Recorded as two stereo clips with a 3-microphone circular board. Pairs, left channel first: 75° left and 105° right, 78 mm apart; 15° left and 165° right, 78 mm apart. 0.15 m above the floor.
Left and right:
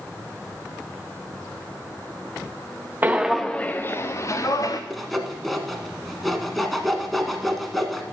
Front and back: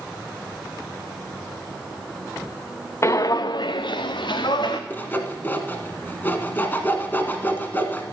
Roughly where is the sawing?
Ahead.